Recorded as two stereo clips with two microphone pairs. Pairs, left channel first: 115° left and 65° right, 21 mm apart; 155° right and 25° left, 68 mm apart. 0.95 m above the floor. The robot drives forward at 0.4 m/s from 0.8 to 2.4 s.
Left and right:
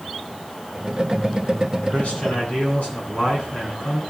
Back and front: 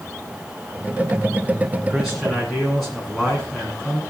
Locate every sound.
1.9 s a man speaking: 115° left, 9.5 m